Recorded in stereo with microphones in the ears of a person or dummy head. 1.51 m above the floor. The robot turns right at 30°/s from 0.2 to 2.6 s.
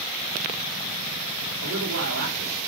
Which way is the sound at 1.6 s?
85° right.